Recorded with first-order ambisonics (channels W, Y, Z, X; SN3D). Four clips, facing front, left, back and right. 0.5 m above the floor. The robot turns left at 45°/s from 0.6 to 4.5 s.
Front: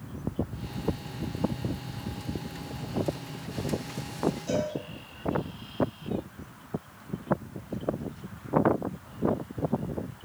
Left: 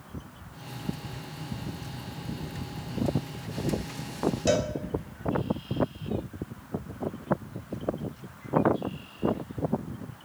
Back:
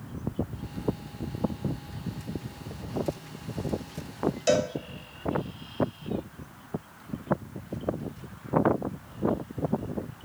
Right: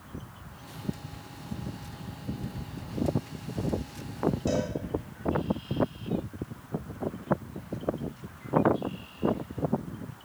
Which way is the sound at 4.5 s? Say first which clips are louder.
Left 4 dB, back 5 dB; 145° left.